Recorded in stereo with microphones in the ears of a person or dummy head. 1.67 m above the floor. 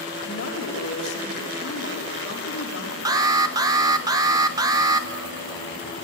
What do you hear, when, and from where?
0.2 s a woman speaking: 65° left (ahead or behind), 3 m
3.0 s an alarm: 20° right (ahead or behind), 0.9 m